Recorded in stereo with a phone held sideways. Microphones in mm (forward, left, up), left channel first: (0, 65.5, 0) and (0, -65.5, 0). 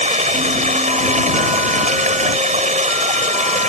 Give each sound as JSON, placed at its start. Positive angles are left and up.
{"t": 0.0, "sound": "running water", "side_deg": -80}